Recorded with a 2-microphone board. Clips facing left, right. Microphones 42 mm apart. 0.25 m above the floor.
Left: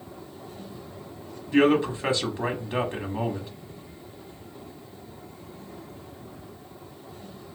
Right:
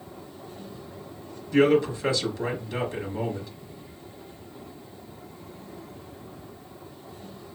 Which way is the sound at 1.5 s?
30° left (ahead or behind).